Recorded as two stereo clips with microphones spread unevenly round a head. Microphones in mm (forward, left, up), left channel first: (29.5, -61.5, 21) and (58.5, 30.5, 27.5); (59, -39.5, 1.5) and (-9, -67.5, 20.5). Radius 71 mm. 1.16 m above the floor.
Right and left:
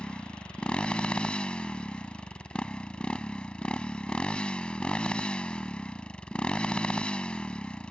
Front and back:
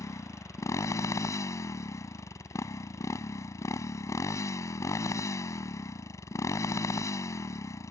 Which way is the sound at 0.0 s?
25° right.